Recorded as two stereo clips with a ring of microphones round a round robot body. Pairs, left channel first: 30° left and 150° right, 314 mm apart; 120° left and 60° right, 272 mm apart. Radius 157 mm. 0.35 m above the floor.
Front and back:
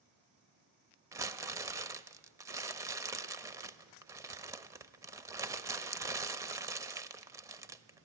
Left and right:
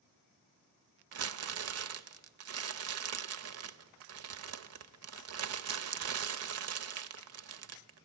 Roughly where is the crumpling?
Right.